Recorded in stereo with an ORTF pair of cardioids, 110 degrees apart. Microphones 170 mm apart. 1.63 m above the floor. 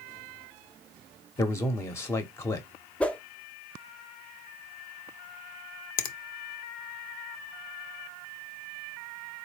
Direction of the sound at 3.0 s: 5° left.